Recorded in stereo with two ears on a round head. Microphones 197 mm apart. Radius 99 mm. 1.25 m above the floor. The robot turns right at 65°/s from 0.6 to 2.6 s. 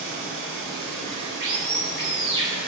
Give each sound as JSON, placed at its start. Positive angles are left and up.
{"t": 0.0, "sound": "running water", "azimuth_deg": -135, "distance_m": 3.0}